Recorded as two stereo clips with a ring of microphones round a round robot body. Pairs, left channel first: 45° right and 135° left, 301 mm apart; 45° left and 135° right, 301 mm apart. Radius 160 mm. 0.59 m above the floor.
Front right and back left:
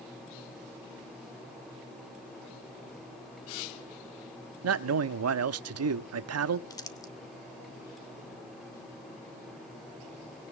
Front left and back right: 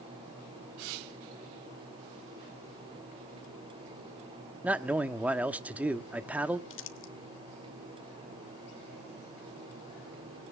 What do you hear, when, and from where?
4.6 s a man speaking: 140° left, 1.0 m
6.7 s crumpling: 30° left, 1.4 m